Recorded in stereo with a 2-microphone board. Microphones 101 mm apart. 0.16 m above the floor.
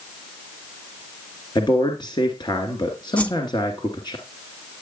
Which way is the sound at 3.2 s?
15° left (ahead or behind).